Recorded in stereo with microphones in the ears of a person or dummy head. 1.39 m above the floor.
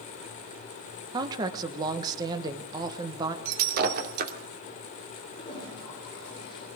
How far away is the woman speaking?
About 1.2 m.